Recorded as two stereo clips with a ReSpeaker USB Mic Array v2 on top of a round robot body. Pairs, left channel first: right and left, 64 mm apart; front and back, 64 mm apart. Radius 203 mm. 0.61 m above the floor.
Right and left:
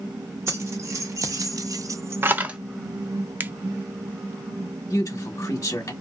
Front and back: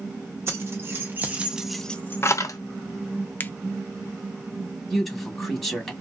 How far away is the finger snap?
About 0.6 m.